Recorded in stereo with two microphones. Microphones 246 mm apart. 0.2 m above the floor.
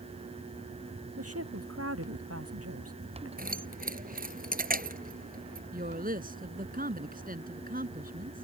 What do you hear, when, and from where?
1.2 s a woman speaking: 70° right (ahead or behind)
3.4 s keys jangling: 35° right (ahead or behind)
5.7 s a woman speaking: 35° right (ahead or behind)